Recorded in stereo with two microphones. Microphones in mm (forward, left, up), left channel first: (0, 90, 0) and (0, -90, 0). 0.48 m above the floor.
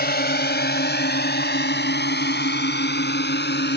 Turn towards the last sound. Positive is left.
turn(degrees=75)  # may be behind; listen again after turning